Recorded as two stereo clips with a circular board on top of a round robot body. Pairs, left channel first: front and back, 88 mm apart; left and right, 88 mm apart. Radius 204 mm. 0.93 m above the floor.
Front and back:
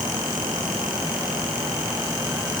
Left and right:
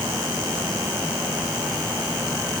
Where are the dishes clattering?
I don't hear dishes clattering.